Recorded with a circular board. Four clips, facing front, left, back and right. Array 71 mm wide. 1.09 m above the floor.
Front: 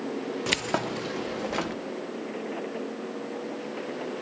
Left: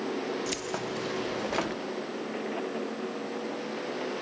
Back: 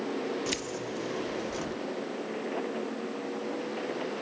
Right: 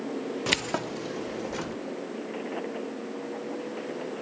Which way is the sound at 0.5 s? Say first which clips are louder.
Right 3 dB, front 6 dB; 60° right.